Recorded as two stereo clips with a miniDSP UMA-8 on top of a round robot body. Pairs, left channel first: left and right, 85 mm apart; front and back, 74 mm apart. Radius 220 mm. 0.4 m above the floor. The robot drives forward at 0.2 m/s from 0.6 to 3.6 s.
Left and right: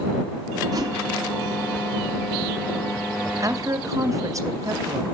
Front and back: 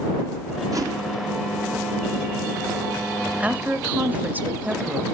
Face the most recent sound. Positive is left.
turn(degrees=-120)